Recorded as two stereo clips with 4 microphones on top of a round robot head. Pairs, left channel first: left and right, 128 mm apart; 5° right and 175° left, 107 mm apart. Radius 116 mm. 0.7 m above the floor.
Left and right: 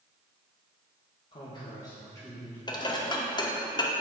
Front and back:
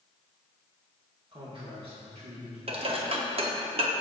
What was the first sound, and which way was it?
A man speaking, 135° left.